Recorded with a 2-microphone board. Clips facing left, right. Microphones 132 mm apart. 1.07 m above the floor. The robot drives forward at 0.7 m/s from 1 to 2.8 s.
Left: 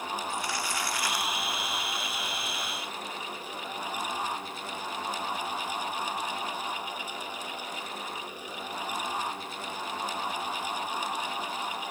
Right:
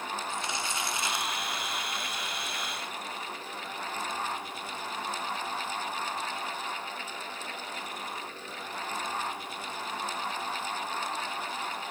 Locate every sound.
0.3 s crumpling: 20° right (ahead or behind), 0.8 m; by 1.3 s 25° right (ahead or behind), 0.7 m